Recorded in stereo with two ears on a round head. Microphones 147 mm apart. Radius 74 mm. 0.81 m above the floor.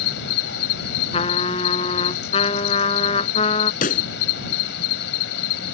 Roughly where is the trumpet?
Left.